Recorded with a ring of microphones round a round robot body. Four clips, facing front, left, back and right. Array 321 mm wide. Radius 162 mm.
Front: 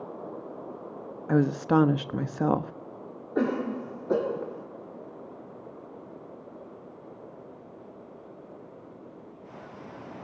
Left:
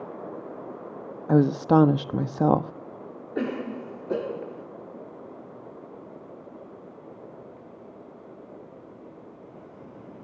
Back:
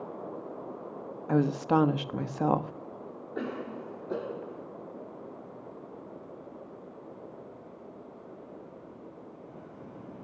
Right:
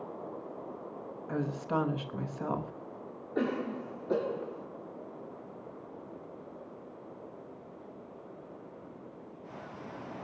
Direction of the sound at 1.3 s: 70° left.